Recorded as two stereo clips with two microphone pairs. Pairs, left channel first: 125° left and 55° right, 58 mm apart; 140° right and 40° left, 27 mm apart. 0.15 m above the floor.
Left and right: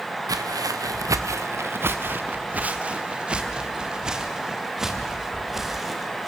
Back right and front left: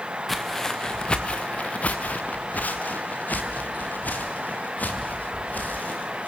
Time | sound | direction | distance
0.3 | footsteps | 50° right | 0.9 m